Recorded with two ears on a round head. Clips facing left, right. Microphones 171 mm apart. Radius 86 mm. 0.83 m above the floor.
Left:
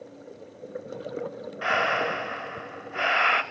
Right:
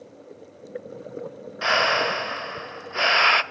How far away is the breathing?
About 0.9 m.